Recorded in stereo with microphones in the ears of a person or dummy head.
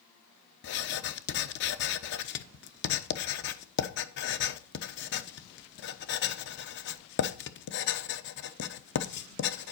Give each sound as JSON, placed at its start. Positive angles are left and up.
{"t": 0.6, "sound": "writing", "side_deg": 55, "distance_m": 0.9}